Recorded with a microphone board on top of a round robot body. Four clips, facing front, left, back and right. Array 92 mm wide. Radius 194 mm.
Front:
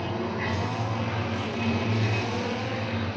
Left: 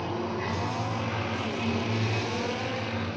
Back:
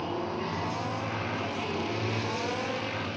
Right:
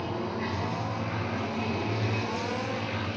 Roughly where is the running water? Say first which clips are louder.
Left 1 dB, front 2 dB; ahead.